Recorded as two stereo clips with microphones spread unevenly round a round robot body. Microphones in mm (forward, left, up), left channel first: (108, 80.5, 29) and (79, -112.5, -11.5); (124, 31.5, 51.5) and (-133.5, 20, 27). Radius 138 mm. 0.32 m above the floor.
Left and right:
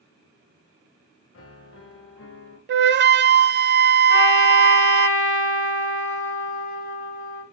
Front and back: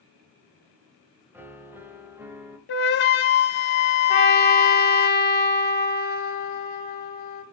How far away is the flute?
About 0.5 m.